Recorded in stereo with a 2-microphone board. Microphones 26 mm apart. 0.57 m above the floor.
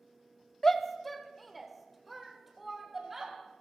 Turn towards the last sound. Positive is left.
turn(degrees=-5)  # may be behind; listen again after turning